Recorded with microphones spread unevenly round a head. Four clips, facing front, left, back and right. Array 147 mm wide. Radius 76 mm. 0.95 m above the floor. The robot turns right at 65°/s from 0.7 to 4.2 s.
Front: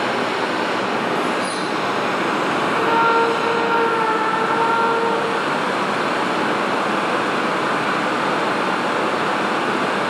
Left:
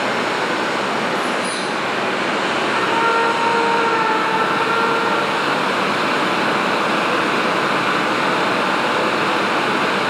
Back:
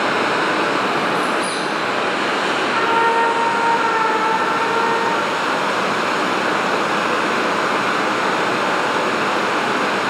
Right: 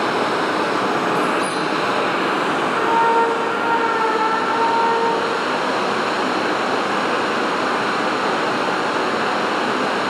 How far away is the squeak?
About 1.3 m.